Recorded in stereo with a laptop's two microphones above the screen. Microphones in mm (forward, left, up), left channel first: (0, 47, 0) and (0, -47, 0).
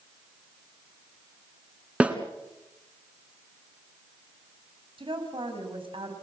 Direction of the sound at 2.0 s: 15° right (ahead or behind).